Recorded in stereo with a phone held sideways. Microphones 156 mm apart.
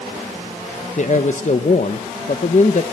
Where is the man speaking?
55° left (ahead or behind), 0.9 m.